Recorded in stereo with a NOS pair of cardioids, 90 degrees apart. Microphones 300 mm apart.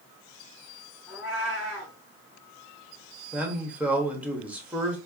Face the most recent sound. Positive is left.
turn(degrees=-5)